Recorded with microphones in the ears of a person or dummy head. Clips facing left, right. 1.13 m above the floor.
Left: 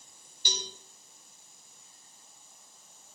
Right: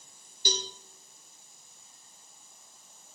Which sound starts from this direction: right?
A cowbell, at 0.5 s.